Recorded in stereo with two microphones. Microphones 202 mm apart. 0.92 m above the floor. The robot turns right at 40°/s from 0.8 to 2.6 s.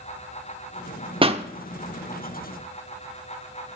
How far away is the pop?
About 0.8 m.